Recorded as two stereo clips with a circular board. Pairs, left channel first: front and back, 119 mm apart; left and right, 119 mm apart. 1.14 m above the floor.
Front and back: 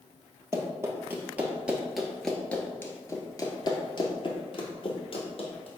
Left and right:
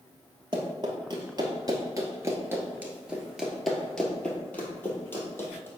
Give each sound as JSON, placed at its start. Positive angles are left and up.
{"t": 0.5, "sound": "running footsteps", "azimuth_deg": -125, "distance_m": 1.7}